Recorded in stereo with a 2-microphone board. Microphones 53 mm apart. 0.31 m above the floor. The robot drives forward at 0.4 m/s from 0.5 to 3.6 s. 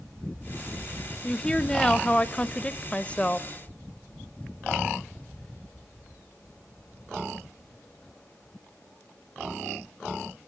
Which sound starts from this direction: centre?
A woman speaking, at 1.2 s.